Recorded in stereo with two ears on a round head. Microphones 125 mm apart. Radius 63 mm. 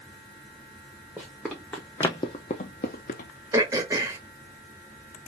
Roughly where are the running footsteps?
Centre.